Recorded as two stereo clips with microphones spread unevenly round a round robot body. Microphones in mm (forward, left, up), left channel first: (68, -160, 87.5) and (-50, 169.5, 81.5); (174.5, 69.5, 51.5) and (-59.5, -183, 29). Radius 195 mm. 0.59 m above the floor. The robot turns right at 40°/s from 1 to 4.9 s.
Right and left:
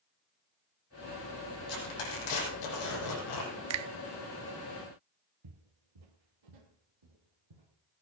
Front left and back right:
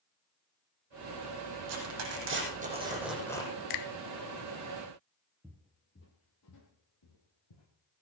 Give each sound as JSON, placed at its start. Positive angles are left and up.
{"t": 1.7, "sound": "tearing paper", "azimuth_deg": -100, "distance_m": 6.0}
{"t": 3.7, "sound": "a finger snap", "azimuth_deg": 65, "distance_m": 0.6}
{"t": 5.4, "sound": "footsteps", "azimuth_deg": 135, "distance_m": 1.0}